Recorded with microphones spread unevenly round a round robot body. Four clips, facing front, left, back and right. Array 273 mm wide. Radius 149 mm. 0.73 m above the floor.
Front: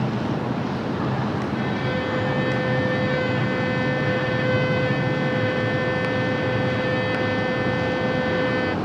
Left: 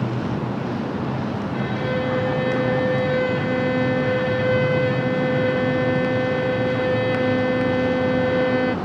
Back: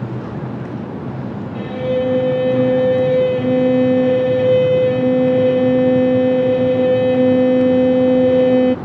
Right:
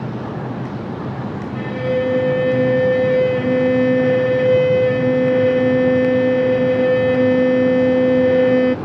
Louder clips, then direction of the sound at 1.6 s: Right 6 dB, back 6 dB; 150° right.